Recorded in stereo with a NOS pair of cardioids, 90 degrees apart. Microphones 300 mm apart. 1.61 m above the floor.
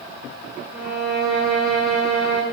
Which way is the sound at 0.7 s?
Straight ahead.